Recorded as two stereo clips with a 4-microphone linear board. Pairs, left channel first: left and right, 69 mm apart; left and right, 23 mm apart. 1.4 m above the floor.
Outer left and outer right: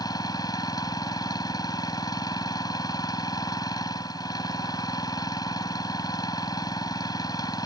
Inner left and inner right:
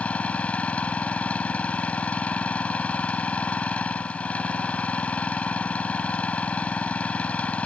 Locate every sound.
0.0 s an engine running: 65° left (ahead or behind)